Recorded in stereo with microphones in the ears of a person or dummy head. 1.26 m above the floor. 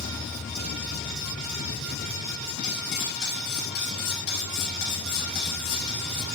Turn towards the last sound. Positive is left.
turn(degrees=65)  # may be behind; listen again after turning